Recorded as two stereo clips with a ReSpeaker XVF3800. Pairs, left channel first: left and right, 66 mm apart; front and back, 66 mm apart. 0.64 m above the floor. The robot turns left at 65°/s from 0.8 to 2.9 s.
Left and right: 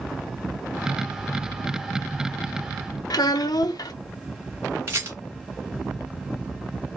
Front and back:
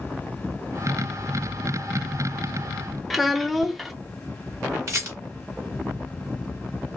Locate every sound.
3.1 s a child speaking: 90° left, 0.6 m
4.9 s a rattle: 140° right, 1.6 m